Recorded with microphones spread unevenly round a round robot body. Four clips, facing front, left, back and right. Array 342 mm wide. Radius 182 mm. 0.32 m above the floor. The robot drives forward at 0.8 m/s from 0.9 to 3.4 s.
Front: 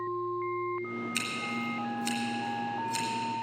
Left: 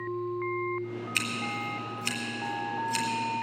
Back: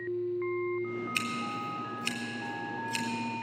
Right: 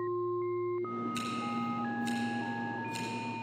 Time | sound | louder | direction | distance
1.1 | scissors | left 1 dB, even | 100° left | 3.5 m